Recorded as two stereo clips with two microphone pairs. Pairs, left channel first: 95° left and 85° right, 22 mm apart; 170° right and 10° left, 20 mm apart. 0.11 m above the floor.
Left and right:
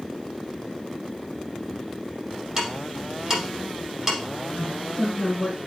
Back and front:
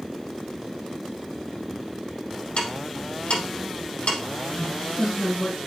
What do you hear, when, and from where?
2.6 s ticking: 155° right, 4.5 m
4.5 s a man speaking: 170° left, 3 m